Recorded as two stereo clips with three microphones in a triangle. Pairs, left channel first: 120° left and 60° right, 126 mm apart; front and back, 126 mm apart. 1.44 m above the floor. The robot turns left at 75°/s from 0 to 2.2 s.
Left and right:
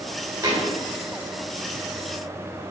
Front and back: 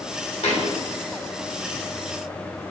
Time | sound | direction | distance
0.4 | a thud | 5° right | 2 m